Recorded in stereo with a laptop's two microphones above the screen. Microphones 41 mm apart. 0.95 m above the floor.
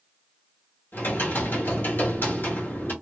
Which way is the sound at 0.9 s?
50° left (ahead or behind).